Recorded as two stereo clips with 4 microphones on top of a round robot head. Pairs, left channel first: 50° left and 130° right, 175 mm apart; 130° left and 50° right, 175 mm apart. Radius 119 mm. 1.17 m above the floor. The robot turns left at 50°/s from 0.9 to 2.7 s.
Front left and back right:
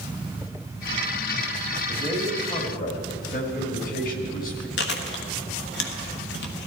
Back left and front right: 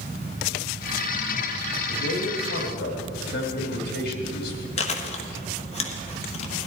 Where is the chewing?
75° left, 1.4 m.